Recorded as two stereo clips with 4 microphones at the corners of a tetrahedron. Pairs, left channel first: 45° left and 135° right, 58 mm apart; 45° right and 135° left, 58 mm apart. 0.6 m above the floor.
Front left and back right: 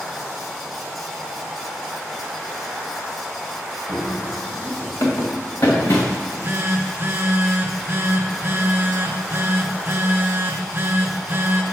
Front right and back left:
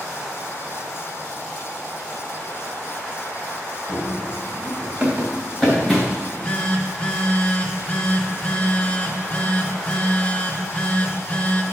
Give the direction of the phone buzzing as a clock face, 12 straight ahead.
3 o'clock.